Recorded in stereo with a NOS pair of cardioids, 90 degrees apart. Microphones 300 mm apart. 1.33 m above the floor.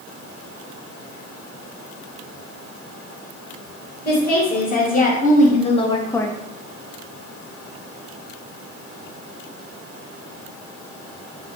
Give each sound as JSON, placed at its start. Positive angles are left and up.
{"t": 4.0, "sound": "a woman speaking", "azimuth_deg": 30, "distance_m": 1.6}